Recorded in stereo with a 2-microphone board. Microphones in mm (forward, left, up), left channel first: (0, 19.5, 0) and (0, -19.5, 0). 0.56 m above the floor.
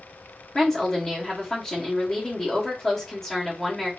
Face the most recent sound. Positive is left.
turn(degrees=10)  # may be behind; listen again after turning